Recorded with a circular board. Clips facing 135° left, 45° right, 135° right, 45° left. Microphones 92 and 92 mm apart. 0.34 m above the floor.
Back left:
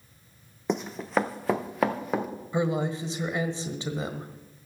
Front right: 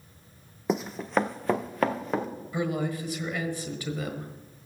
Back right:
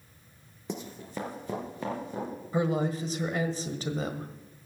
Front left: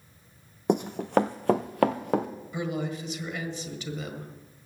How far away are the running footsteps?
About 0.6 m.